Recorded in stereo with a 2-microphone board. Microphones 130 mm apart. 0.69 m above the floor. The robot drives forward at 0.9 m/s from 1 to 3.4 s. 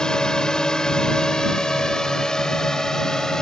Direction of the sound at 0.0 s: 5° left (ahead or behind).